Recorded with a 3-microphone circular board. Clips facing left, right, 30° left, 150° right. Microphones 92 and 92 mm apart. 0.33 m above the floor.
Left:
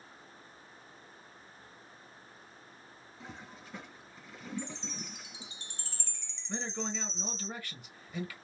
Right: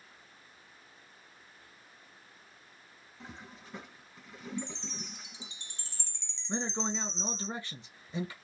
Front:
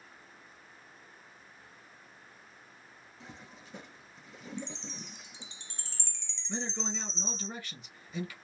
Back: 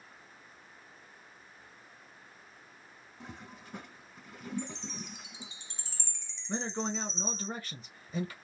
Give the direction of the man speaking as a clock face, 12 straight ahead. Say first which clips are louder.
Right 3 dB, back 3 dB; 5 o'clock.